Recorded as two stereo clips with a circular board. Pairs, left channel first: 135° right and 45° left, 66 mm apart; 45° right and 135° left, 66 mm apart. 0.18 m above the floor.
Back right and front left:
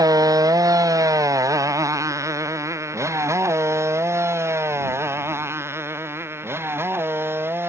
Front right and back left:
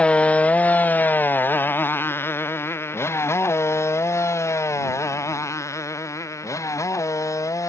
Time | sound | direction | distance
0.0 | a motorcycle | 25° left | ?